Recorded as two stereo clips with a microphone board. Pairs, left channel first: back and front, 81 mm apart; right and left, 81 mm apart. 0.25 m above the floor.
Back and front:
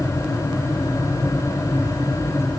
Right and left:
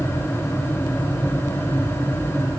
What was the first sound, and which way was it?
Only background noise.